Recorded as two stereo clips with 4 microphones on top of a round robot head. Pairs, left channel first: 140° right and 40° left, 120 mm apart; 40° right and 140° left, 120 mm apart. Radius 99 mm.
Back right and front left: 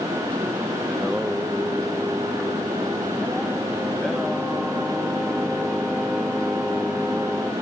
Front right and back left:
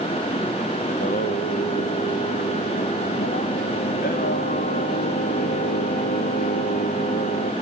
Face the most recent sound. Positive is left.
turn(degrees=-50)